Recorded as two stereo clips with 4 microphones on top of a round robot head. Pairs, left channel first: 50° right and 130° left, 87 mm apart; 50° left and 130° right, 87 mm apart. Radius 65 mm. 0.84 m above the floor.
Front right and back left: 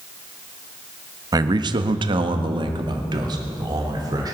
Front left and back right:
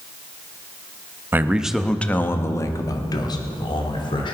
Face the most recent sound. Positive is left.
turn(degrees=80)